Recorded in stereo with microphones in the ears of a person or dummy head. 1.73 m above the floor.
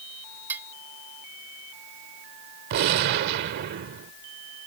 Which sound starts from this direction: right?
A gunshot, at 2.7 s.